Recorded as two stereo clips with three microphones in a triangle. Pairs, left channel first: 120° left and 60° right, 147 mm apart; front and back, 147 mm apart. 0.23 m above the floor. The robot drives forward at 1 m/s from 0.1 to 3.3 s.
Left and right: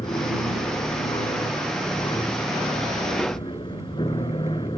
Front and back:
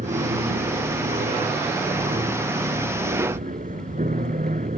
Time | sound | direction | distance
0.0 | an aircraft | 170° left | ?